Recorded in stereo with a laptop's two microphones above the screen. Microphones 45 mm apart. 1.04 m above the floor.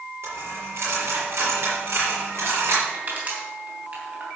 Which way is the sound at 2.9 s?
40° right (ahead or behind).